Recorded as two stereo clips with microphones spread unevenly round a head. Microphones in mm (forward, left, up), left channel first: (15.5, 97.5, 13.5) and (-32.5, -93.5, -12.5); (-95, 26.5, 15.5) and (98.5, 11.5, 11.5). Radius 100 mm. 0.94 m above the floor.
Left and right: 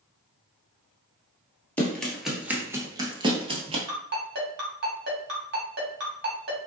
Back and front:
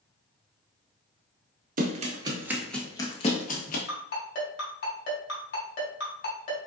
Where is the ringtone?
145° right, 2 m.